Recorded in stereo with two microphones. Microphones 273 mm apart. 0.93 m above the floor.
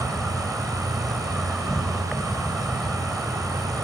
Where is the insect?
Centre (ahead or behind), 2.5 m.